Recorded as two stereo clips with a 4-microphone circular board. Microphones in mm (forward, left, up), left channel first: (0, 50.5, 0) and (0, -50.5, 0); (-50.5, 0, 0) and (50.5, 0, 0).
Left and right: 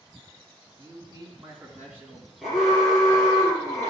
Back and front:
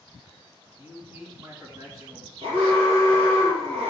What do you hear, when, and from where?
0.8 s a man speaking: 55° right, 2.5 m; by 2.3 s 15° right, 2 m
2.4 s an alarm: straight ahead, 4 m